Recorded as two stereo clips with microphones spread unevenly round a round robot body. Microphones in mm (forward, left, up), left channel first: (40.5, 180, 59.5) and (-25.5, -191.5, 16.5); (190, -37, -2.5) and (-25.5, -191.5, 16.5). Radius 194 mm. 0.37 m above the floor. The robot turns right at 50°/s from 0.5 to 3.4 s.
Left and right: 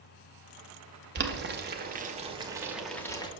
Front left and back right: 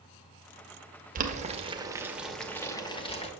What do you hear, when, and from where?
1.1 s boiling: 105° right, 0.8 m; by 3.3 s straight ahead, 0.8 m